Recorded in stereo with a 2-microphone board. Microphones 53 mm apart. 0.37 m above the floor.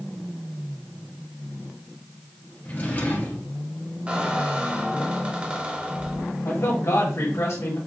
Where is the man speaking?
55° left (ahead or behind), 1.7 m.